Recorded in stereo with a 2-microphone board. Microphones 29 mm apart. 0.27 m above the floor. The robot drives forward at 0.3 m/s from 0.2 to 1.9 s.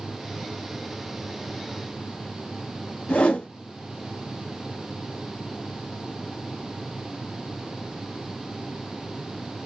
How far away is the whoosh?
About 0.6 m.